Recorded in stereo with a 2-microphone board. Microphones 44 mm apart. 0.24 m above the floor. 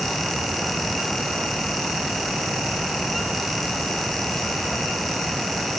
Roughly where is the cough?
I don't hear a cough.